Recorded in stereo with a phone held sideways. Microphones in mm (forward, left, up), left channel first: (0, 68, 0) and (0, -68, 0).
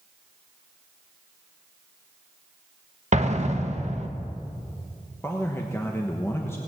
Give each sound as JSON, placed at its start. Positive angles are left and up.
{"t": 3.1, "sound": "an explosion", "side_deg": -60, "distance_m": 1.1}
{"t": 5.2, "sound": "a man speaking", "side_deg": 20, "distance_m": 1.1}